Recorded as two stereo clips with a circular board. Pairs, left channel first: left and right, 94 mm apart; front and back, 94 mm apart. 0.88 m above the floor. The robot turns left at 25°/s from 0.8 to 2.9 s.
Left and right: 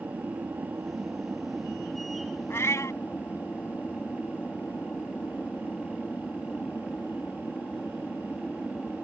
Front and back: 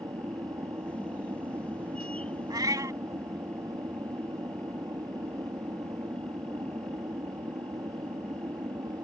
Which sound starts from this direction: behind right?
An aircraft, at 0.0 s.